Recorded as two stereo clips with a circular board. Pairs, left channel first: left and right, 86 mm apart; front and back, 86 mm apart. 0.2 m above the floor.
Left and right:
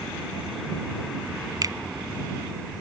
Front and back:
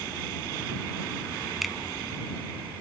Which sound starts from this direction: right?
A finger snap, at 1.6 s.